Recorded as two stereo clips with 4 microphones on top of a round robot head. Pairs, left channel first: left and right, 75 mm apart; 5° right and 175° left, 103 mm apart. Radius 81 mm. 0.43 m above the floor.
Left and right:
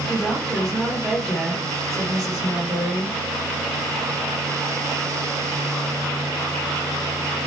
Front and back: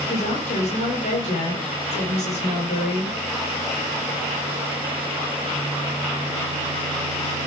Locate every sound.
0.1 s a woman speaking: 5° left, 10 m